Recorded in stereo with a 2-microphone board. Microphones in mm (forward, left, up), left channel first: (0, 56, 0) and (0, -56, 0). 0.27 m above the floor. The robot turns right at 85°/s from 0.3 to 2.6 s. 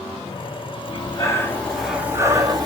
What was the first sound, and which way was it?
Breathing, 100° left.